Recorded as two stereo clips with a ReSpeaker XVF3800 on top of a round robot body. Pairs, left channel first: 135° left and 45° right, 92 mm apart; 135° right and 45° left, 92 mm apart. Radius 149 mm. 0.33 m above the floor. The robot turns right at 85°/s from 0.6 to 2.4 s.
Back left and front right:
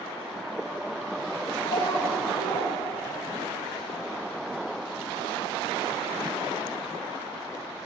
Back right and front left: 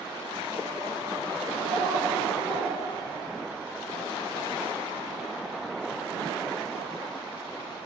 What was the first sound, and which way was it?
A child speaking, 105° left.